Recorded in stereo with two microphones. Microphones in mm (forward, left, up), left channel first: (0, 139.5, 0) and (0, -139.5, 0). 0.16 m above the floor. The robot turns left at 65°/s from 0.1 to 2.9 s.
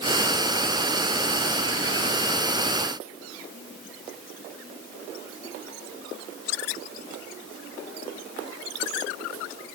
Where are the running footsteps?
I don't hear running footsteps.